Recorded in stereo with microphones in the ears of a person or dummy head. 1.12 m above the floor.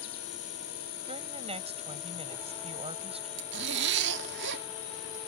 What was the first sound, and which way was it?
An insect, 60° left (ahead or behind).